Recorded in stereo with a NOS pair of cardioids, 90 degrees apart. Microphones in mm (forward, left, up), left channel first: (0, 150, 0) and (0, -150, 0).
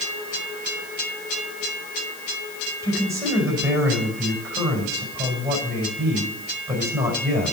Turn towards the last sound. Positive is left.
turn(degrees=-10)